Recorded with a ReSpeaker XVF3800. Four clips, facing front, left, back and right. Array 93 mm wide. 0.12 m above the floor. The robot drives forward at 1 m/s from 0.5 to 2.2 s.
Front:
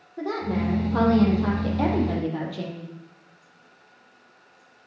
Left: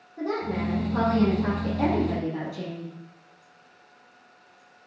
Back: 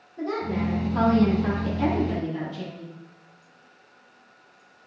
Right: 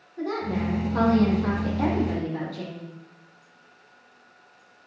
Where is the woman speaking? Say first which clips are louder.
Even, front 1 dB; 10° left, 5.5 m; by 3.0 s 15° left, 4 m.